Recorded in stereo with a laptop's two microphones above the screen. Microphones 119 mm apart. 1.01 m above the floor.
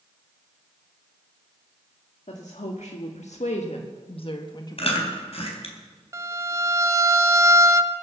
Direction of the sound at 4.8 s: 55° left (ahead or behind).